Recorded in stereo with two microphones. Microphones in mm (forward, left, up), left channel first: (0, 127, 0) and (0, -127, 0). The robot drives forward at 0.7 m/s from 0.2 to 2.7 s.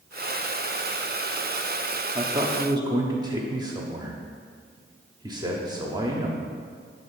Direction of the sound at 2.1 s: 20° right (ahead or behind).